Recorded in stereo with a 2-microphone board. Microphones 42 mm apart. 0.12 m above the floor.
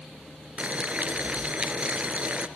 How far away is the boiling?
About 1.7 m.